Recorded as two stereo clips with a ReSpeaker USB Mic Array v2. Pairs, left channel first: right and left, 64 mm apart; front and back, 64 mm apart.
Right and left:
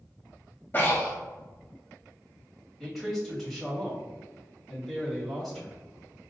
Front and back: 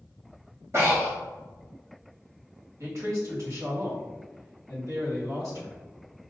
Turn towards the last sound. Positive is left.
turn(degrees=180)